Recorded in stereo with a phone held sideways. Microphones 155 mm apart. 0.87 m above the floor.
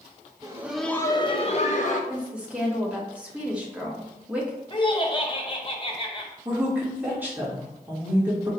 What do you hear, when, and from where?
0.4 s laughter: 25° right (ahead or behind), 0.6 m; by 2.0 s 55° left (ahead or behind), 1.0 m
2.1 s a woman speaking: 10° right (ahead or behind), 1.3 m
4.7 s laughter: 35° left (ahead or behind), 0.9 m
6.5 s a woman speaking: 15° right (ahead or behind), 1.5 m